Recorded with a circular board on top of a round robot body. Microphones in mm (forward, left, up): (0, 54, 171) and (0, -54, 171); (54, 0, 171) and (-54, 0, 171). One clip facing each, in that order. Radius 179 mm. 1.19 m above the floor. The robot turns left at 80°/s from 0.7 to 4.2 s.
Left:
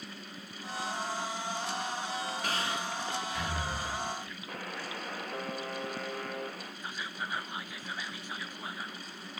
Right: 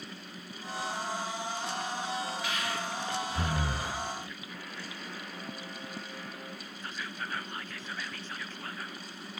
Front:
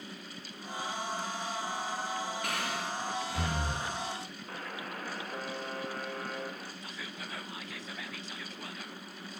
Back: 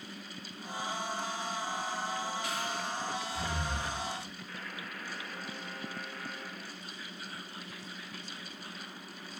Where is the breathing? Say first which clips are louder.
Even, front 1 dB; 40° left, 1.2 m; by 3.9 s 75° right, 1.2 m.